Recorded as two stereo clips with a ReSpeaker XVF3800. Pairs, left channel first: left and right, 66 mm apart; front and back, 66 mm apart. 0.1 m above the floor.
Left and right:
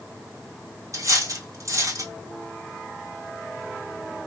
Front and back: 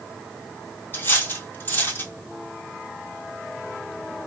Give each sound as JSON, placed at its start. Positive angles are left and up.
{"t": 0.9, "sound": "cutlery clinking", "azimuth_deg": -55, "distance_m": 1.6}